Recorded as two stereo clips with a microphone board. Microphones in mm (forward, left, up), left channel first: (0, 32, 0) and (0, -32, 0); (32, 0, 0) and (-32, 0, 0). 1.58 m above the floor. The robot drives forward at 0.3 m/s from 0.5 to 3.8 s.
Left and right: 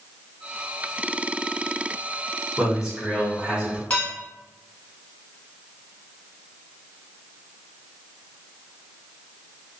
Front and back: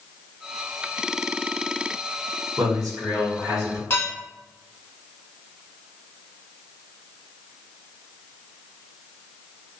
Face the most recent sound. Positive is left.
turn(degrees=25)